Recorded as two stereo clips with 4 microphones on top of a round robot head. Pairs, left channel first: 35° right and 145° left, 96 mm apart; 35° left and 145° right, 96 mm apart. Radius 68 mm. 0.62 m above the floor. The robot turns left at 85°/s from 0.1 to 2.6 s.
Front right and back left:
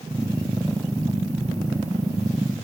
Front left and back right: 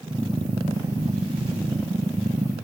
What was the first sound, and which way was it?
Only background noise.